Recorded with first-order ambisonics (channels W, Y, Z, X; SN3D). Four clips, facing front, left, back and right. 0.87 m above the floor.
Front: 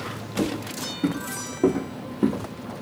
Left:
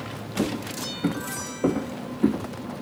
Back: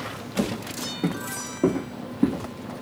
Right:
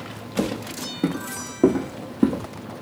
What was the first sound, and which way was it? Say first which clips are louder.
Footsteps: right 1 dB, front 1 dB; 110° right.